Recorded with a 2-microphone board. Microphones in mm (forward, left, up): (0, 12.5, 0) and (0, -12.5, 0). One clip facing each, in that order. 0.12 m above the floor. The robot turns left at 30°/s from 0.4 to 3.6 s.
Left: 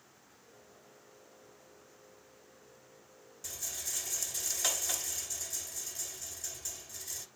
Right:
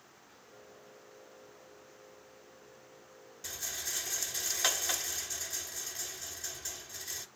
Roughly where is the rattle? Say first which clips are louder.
Right 2 dB; right.